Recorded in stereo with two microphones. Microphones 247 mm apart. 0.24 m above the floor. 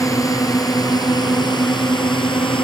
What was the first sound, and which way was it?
A drone, 15° left (ahead or behind).